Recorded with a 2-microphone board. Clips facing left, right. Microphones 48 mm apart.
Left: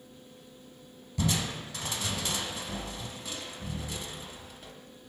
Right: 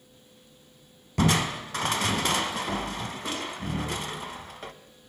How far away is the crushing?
About 0.6 m.